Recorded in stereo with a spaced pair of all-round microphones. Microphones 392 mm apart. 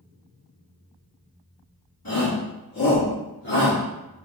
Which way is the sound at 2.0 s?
60° left (ahead or behind).